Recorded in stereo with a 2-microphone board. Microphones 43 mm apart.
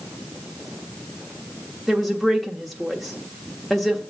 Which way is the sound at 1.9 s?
5° left (ahead or behind).